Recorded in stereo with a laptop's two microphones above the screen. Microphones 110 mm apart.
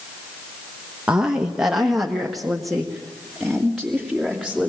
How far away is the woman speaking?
About 1.1 m.